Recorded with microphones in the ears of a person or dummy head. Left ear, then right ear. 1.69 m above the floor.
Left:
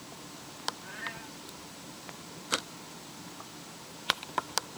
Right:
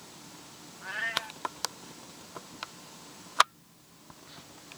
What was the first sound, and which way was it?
A cat meowing, 25° right (ahead or behind).